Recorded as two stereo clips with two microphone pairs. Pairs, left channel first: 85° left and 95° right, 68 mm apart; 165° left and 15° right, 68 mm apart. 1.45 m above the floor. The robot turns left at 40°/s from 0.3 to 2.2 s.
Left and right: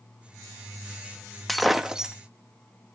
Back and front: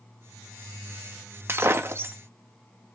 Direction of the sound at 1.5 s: 5° right.